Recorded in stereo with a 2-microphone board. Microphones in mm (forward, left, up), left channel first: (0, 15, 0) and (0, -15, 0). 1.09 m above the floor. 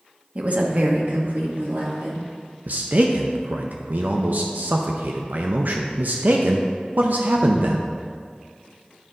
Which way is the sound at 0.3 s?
40° right (ahead or behind).